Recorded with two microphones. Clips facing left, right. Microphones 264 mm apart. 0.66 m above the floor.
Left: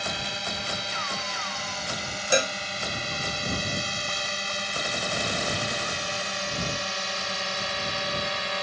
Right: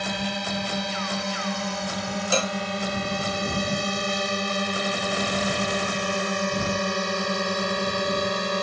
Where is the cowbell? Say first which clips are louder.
Left 2 dB; 15° left (ahead or behind).